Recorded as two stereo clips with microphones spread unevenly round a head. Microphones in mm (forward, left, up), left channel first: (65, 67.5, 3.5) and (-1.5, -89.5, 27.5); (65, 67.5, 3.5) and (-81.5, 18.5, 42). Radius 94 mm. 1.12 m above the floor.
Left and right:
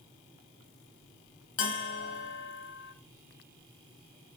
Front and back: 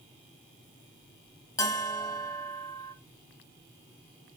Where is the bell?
90° left, 0.6 m.